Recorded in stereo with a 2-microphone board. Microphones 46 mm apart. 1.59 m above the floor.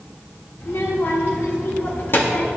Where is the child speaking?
70° left (ahead or behind), 2.5 m; by 2.5 s 45° left (ahead or behind), 1.2 m.